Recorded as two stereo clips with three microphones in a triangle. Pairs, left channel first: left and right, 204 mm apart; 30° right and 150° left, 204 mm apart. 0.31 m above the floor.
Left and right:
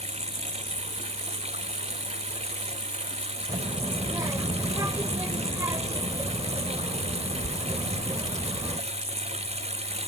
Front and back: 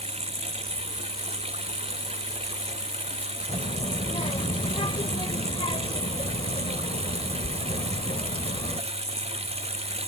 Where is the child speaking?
35° right.